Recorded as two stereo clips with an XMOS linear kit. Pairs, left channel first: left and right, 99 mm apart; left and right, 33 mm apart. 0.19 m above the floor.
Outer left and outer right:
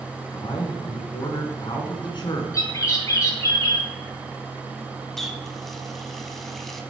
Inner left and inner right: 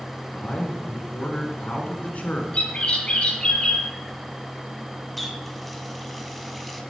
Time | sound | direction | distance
0.3 | a man speaking | 50° left (ahead or behind) | 1.9 m
2.5 | a bird | 35° left (ahead or behind) | 2.0 m
5.2 | a running tap | centre (ahead or behind) | 0.8 m